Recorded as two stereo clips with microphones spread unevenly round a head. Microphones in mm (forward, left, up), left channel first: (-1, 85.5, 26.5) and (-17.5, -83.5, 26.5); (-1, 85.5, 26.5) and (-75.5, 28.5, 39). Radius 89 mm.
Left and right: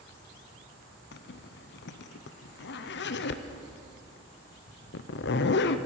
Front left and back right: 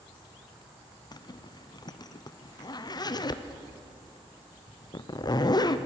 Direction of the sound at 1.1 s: 75° left.